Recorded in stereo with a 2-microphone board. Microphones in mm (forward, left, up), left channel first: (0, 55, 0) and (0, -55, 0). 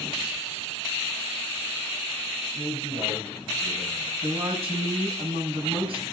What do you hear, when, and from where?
2.5 s a man speaking: 70° right (ahead or behind), 10 m; by 4.1 s 75° right (ahead or behind), 9.5 m
4.2 s a woman speaking: 55° right (ahead or behind), 5.5 m